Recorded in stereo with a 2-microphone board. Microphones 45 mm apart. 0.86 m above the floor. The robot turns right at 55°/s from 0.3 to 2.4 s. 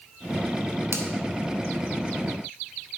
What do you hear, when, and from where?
0.9 s a finger snap: 70° right (ahead or behind), 1.3 m; by 1.1 s 75° right (ahead or behind), 1.3 m